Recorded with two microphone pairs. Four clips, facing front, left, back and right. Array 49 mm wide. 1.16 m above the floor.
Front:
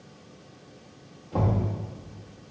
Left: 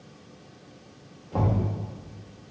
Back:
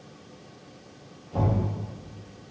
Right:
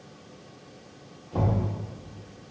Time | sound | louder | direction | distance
1.3 | knocking | left 1 dB, even | 55° left | 1.8 m